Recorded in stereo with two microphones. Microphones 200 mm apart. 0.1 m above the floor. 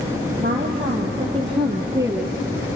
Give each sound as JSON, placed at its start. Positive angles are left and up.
{"t": 0.4, "sound": "a woman speaking", "side_deg": -35, "distance_m": 4.0}